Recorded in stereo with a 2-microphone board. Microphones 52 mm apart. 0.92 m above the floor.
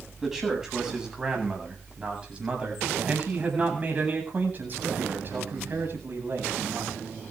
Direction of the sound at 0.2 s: 10° right (ahead or behind).